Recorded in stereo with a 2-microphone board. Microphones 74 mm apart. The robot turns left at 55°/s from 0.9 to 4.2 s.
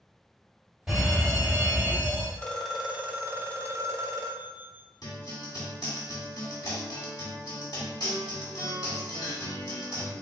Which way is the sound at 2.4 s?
25° left.